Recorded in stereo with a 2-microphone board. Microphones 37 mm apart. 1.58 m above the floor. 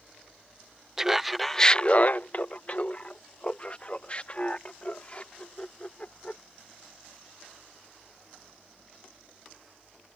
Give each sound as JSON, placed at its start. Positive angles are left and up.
{"t": 1.0, "sound": "laughter", "side_deg": -10}